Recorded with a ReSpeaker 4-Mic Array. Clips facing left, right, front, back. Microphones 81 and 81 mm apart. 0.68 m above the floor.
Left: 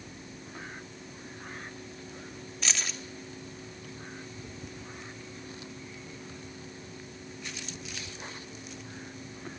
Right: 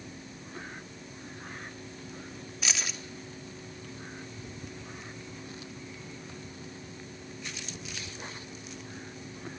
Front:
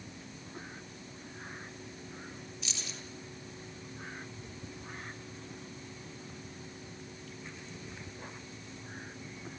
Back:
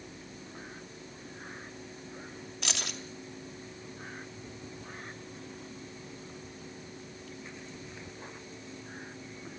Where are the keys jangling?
175° right, 1.8 m.